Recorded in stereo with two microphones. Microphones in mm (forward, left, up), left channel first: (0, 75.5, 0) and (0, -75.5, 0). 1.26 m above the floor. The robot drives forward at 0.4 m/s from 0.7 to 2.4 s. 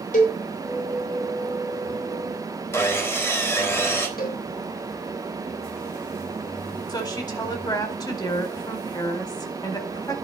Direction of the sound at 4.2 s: 70° left (ahead or behind).